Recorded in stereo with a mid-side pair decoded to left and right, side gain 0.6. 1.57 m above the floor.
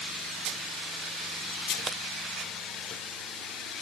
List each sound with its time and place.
1.9 s a crack: 20° right, 0.6 m